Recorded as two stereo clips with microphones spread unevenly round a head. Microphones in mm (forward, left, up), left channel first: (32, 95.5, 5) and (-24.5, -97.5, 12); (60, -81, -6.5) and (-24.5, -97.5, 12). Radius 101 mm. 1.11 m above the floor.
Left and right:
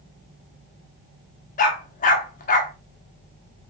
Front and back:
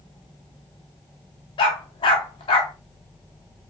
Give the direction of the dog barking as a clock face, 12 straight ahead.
11 o'clock.